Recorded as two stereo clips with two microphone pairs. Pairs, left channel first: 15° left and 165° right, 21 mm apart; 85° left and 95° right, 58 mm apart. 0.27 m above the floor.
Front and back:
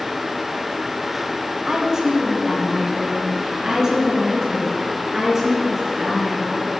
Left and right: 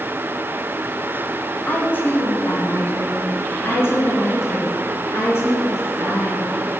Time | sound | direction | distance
1.7 | a woman speaking | 140° left | 2 m